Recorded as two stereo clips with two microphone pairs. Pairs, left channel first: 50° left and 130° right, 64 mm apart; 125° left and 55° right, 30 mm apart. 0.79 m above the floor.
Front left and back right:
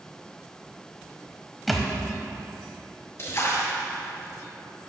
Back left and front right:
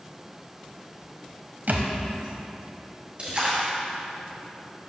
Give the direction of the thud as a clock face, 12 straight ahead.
1 o'clock.